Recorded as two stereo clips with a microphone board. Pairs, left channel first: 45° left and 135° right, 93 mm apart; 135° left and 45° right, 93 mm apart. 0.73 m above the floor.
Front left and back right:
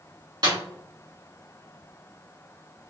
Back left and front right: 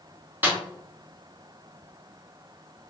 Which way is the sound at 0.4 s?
110° right.